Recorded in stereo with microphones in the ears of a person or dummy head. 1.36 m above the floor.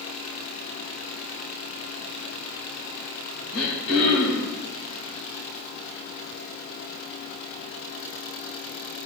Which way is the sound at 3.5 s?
75° left (ahead or behind).